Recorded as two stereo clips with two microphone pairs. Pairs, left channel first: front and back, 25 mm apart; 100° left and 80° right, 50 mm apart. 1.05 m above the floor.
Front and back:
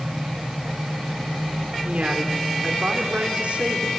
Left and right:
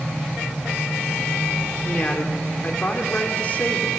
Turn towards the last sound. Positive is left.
turn(degrees=155)